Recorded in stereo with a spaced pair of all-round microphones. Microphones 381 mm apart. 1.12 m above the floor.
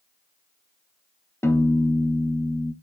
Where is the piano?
5° left (ahead or behind), 0.6 m.